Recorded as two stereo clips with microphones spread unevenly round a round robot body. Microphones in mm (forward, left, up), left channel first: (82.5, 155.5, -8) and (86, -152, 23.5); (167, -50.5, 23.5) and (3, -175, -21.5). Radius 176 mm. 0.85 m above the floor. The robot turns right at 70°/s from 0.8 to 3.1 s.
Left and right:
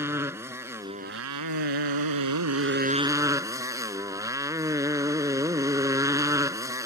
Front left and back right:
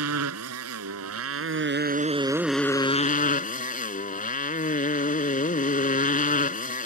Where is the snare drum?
No snare drum in this recording.